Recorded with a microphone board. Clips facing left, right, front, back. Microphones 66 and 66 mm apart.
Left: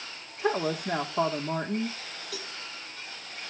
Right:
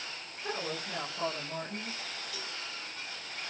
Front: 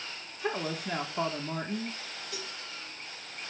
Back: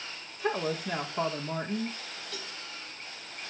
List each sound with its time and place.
0.4 s a woman speaking: 90° left, 5.5 m
2.3 s a cowbell: 80° left, 4.5 m